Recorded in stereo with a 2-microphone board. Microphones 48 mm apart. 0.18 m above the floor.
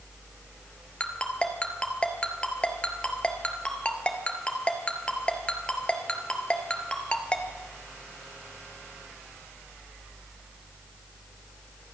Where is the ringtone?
20° left (ahead or behind), 1.5 m.